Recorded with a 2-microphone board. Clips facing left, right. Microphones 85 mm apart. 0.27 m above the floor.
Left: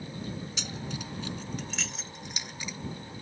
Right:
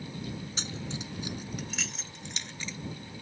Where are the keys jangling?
35° right (ahead or behind); by 2.8 s 15° left (ahead or behind).